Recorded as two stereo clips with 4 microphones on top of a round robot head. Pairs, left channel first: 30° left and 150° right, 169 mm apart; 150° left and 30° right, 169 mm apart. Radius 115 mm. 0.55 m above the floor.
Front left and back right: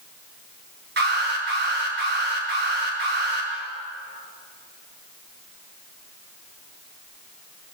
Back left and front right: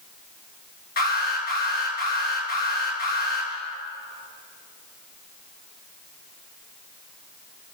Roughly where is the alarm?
Behind.